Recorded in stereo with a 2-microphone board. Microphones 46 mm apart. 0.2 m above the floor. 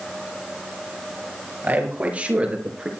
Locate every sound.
1.6 s a man speaking: 40° right (ahead or behind), 4 m; by 2.9 s 20° right (ahead or behind), 3.5 m